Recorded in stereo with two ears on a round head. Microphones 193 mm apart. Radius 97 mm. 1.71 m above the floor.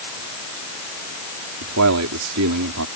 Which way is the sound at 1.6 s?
90° right.